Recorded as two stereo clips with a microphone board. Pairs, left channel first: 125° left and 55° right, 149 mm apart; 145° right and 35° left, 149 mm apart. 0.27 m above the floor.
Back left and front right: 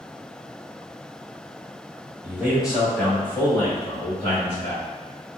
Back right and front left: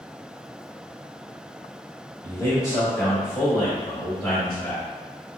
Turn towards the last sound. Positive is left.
turn(degrees=150)